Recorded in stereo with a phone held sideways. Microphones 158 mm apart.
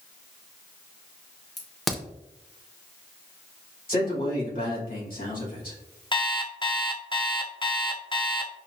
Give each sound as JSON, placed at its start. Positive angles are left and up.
{"t": 1.6, "sound": "a crack", "side_deg": 0, "distance_m": 0.8}
{"t": 3.9, "sound": "a man speaking", "side_deg": 65, "distance_m": 2.0}
{"t": 6.1, "sound": "an alarm clock", "side_deg": 30, "distance_m": 0.5}